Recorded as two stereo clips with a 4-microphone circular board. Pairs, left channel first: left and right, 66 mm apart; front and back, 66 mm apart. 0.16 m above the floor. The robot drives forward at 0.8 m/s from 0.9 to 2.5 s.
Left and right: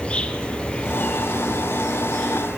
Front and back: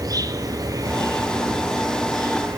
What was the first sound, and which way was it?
An insect, 165° left.